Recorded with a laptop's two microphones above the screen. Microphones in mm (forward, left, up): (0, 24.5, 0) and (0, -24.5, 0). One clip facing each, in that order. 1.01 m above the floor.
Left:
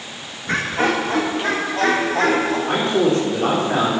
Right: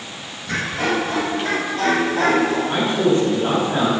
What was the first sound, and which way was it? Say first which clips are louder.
Laughter: left 2 dB; 35° left (ahead or behind).